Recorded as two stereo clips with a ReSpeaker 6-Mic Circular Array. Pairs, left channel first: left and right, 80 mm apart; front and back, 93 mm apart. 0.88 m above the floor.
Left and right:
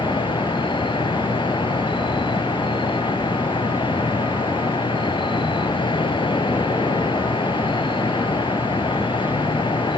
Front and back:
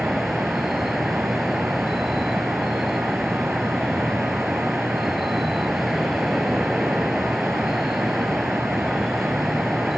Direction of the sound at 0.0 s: 90° left.